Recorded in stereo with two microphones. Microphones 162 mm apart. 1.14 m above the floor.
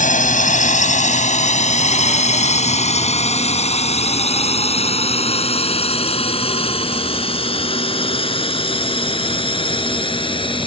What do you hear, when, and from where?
0.0 s a drone: 55° left (ahead or behind); by 10.7 s 30° left (ahead or behind)